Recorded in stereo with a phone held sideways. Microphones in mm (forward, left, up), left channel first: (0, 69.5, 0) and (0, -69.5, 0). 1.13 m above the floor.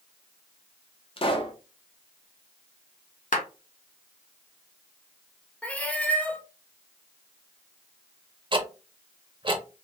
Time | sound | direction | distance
1.2 | a pop | 40° left (ahead or behind) | 0.6 m
3.3 | a clap | 70° left (ahead or behind) | 0.9 m
5.6 | a cat meowing | 10° left (ahead or behind) | 0.6 m
8.5 | ticking | 35° right (ahead or behind) | 0.6 m